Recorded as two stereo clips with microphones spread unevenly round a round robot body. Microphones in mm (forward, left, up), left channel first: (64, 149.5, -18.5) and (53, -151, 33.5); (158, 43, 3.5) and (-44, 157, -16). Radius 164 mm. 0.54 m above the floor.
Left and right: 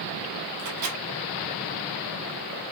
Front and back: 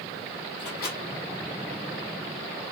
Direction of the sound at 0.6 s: 80° right.